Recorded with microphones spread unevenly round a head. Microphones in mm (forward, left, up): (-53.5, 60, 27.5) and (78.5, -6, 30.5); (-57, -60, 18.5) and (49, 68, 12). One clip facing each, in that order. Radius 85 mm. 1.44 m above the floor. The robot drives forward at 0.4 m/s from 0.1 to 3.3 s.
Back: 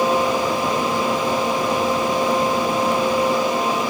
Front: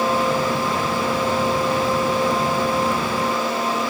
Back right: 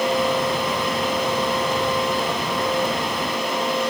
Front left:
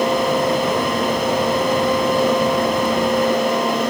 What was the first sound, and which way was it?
Only background noise.